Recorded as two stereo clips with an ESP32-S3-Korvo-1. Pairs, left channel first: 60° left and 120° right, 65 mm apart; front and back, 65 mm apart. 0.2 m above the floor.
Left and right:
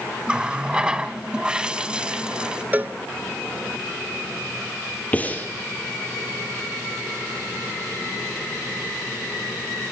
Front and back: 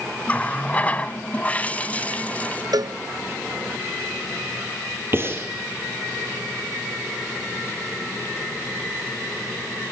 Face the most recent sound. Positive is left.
turn(degrees=125)